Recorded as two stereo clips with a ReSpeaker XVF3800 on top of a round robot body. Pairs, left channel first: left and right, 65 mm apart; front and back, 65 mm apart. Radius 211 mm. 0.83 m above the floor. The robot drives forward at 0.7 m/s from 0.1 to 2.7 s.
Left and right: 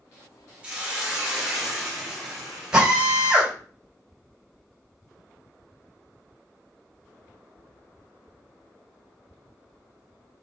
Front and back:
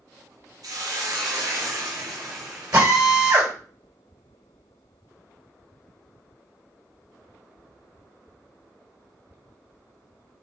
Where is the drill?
165° right, 3.5 m.